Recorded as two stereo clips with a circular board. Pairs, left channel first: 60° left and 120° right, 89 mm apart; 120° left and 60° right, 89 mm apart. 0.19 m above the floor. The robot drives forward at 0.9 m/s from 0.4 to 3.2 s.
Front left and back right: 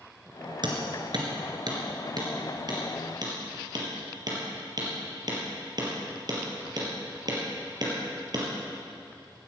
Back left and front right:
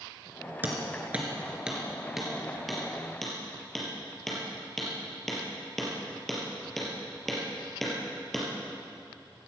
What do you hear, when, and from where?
0.6 s hammering: 125° right, 2.5 m; by 8.5 s 155° right, 4 m